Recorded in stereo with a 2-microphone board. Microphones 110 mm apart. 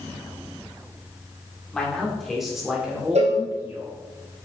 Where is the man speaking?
10° left (ahead or behind), 2 m; by 4.0 s 20° right (ahead or behind), 3 m.